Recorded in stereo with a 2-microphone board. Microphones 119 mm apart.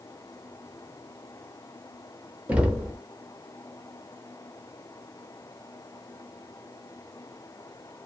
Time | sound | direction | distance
2.5 | knocking | 10° right (ahead or behind) | 0.5 m